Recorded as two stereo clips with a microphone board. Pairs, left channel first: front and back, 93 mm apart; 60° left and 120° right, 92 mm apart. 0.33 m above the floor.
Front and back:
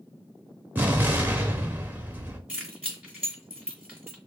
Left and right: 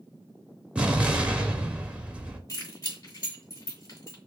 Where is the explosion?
170° right, 0.7 m.